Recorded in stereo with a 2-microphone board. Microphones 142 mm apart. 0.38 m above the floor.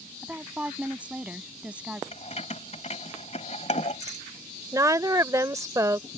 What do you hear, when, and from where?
0.2 s a woman speaking: 10° right (ahead or behind)
2.1 s keys jangling: 50° left (ahead or behind)
4.7 s a woman speaking: 20° right (ahead or behind)